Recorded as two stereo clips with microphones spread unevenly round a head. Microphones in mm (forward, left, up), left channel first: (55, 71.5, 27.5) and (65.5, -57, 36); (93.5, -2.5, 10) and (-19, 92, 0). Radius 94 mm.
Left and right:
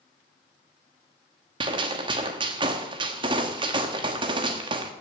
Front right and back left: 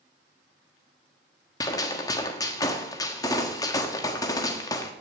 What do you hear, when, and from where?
1.6 s a gunshot: 85° right, 1.3 m